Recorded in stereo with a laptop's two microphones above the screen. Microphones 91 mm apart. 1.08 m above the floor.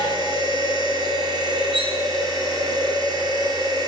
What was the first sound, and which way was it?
A machine running, 50° right (ahead or behind).